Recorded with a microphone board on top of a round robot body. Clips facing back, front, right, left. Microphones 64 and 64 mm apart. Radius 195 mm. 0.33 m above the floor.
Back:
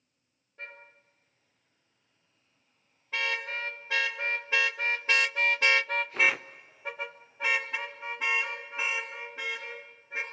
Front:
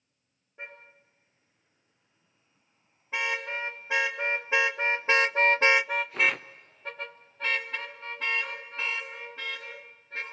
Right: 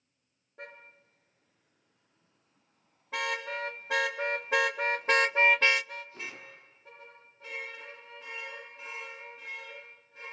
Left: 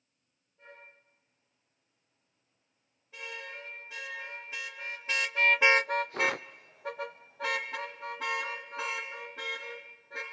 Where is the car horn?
75° right, 5 m; by 10.2 s 100° left, 4.5 m.